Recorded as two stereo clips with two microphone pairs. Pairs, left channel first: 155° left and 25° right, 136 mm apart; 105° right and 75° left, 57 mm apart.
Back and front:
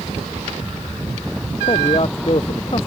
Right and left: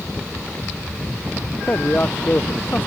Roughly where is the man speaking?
Behind.